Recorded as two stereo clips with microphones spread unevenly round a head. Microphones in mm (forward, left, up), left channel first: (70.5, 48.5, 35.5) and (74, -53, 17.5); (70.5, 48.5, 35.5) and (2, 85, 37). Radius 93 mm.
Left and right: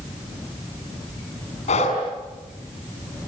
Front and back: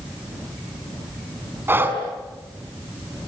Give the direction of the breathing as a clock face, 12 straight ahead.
9 o'clock.